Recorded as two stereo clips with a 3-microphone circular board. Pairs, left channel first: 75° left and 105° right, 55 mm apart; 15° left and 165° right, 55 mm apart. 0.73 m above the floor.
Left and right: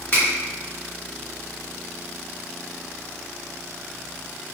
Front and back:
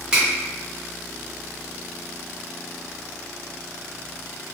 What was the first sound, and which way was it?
A finger snap, 125° left.